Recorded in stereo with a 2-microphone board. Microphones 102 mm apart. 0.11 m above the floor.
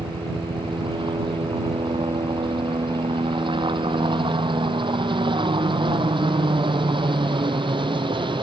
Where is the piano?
No piano in this recording.